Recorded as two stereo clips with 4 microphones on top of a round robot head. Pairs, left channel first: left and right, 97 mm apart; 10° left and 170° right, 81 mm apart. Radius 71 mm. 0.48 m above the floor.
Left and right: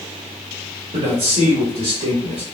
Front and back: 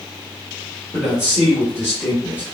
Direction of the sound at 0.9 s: 80° right.